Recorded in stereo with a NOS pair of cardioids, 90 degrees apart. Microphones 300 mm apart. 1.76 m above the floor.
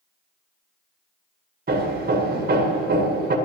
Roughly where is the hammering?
Ahead right.